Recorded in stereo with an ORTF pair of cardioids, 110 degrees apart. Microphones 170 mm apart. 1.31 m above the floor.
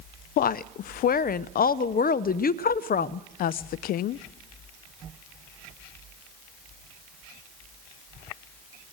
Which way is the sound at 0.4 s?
60° left.